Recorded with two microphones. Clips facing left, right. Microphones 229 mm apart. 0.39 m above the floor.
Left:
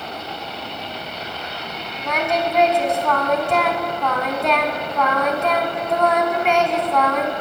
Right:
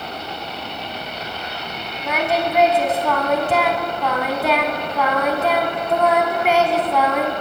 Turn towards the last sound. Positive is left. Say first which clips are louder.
# right 1 dB
turn(degrees=-5)  # may be behind; listen again after turning